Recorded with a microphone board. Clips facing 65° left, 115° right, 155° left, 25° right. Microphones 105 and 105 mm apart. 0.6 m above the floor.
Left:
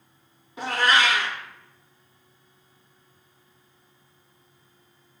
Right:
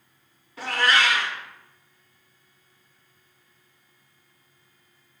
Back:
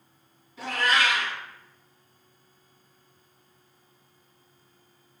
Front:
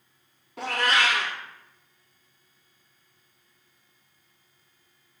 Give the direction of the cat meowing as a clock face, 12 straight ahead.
12 o'clock.